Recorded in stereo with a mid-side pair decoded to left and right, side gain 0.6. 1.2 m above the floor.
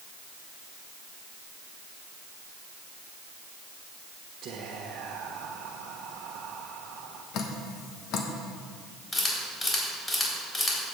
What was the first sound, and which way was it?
Whispering, 50° right.